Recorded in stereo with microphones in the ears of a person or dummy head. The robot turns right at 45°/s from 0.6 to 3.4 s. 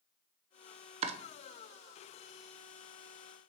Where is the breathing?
I don't hear breathing.